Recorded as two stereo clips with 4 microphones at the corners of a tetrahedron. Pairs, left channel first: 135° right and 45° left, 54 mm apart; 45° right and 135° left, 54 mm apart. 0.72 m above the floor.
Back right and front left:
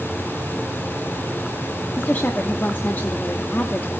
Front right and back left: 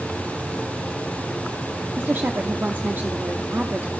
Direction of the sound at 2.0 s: Straight behind.